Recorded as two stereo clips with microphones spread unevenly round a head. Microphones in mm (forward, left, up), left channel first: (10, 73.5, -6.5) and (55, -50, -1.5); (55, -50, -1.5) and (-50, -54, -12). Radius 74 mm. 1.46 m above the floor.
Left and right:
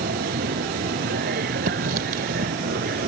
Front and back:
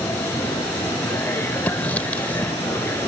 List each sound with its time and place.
0.0 s a machine running: 65° right
1.7 s writing: 70° right